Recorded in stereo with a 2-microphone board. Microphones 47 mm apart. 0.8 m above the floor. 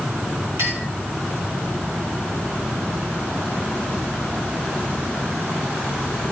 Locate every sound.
0.6 s a clink: 80° right, 5 m